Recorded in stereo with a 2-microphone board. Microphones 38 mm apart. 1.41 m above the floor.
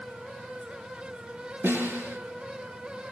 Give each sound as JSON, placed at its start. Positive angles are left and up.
{"t": 1.6, "sound": "a snare drum", "side_deg": -70, "distance_m": 8.0}